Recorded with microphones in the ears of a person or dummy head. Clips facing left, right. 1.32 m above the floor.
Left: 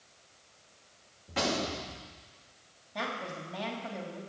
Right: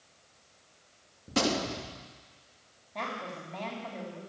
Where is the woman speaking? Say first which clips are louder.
Left 1 dB; 10° left (ahead or behind), 2.5 m.